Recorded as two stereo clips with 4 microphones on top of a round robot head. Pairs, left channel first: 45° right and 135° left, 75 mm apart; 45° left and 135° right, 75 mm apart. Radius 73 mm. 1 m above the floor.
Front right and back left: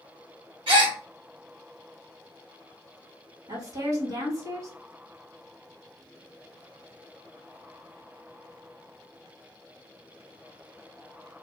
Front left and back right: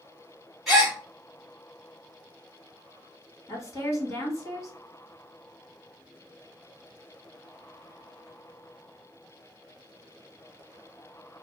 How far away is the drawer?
I don't hear a drawer.